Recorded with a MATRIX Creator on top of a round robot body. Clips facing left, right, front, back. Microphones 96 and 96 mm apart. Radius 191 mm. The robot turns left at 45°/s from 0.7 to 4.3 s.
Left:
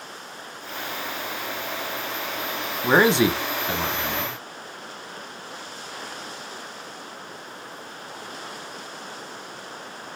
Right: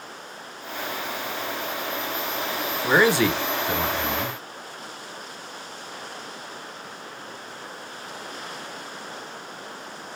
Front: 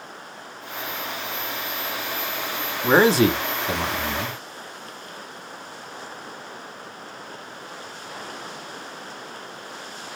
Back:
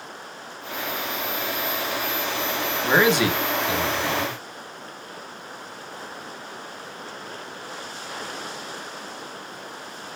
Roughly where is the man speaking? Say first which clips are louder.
Left 1 dB, front 3 dB; ahead left.